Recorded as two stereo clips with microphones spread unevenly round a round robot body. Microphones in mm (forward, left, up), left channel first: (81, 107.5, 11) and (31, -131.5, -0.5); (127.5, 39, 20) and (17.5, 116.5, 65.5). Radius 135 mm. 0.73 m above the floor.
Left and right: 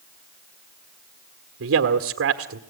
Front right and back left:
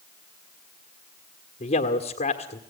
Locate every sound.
1.6 s a man speaking: 70° right, 1.8 m